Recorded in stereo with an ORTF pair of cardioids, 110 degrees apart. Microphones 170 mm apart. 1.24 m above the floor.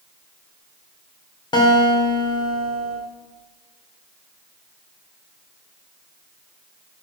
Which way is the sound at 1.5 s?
25° left.